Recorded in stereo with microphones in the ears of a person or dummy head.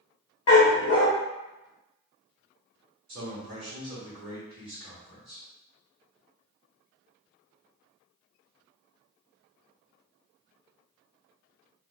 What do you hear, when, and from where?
0.5 s a dog barking: 20° left (ahead or behind), 0.7 m
3.1 s a man speaking: 40° right (ahead or behind), 1.0 m